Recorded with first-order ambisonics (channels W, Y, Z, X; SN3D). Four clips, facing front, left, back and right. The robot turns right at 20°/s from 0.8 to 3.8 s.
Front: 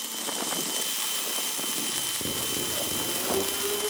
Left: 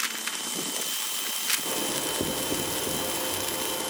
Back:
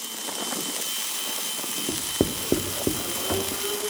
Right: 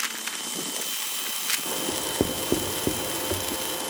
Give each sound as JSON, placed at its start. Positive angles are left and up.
{"t": 1.9, "sound": "writing", "azimuth_deg": -160, "distance_m": 1.8}